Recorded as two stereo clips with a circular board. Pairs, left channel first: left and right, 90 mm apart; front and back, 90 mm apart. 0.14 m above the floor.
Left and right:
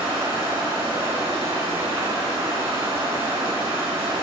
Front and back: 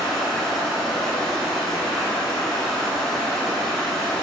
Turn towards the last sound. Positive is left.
turn(degrees=-90)